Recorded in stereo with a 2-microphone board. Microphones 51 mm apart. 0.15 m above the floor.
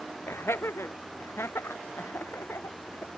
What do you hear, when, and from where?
0.3 s laughter: 55° left (ahead or behind)